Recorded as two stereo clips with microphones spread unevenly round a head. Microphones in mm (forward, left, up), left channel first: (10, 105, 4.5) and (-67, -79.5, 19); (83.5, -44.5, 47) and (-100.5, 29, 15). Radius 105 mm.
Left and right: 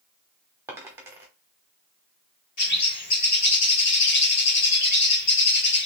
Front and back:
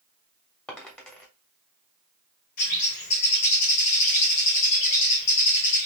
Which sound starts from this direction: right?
A dropped coin, at 0.7 s.